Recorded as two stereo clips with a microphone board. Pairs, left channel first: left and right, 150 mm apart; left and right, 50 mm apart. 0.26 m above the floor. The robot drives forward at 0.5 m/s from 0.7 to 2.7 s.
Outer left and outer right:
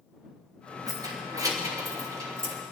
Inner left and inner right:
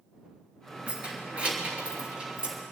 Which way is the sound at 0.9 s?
25° right (ahead or behind).